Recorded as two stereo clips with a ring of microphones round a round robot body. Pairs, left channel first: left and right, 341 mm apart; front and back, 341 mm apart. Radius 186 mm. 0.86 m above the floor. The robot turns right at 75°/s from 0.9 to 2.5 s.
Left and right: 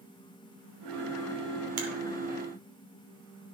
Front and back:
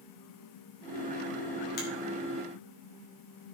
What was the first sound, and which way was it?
A finger snap, 65° right.